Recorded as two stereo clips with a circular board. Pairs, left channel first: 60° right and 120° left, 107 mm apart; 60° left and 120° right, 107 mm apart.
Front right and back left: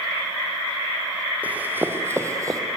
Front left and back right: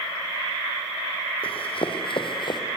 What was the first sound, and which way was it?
Running footsteps, 45° left.